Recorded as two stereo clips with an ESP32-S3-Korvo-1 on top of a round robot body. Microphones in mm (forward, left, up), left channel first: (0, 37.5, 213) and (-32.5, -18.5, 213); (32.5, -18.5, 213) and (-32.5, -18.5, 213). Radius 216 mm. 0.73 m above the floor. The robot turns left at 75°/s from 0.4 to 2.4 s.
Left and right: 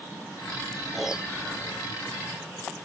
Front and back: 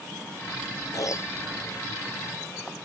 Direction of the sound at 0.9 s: 25° right.